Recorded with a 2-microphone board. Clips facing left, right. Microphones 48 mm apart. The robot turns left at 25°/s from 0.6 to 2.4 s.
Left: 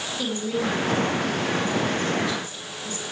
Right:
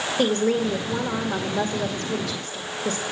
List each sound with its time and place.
0.2 s a woman speaking: 60° right, 1.9 m; by 3.0 s 105° right, 1.9 m